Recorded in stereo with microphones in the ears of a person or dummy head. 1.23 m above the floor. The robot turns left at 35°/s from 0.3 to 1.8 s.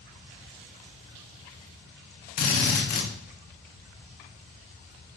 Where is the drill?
45° left (ahead or behind), 1.3 m.